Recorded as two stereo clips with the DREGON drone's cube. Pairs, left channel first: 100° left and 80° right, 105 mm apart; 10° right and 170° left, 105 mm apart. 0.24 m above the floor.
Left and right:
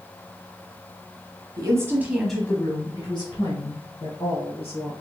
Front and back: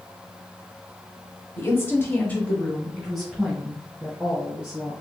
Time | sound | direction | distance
1.6 | a woman speaking | 65° right | 1.2 m